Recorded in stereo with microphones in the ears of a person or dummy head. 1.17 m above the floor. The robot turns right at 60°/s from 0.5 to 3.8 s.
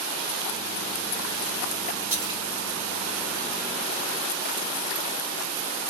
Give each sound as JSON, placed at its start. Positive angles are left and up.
{"t": 2.1, "sound": "a splash", "side_deg": -5, "distance_m": 2.0}